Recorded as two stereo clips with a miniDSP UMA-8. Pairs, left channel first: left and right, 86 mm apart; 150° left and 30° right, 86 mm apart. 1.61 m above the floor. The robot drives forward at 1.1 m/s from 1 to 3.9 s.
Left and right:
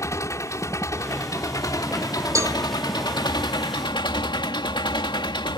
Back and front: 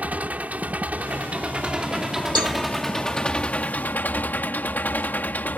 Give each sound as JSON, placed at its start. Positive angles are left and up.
{"t": 0.0, "sound": "an engine running", "azimuth_deg": 40}
{"t": 2.4, "sound": "a cowbell", "azimuth_deg": -40}